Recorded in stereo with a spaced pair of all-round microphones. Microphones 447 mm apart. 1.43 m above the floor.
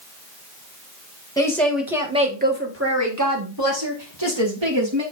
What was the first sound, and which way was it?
A woman speaking, 10° left (ahead or behind).